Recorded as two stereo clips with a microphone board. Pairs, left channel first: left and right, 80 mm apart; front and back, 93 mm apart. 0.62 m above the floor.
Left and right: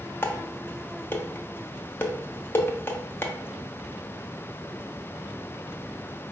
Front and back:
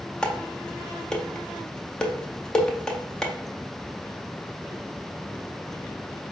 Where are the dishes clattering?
75° left, 0.5 m.